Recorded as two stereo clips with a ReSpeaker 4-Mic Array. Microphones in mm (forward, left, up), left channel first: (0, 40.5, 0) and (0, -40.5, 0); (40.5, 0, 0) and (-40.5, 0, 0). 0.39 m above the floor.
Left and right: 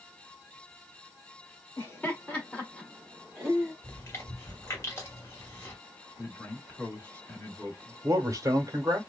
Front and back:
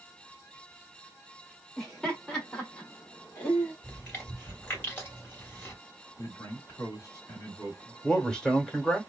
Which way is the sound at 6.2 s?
35° left.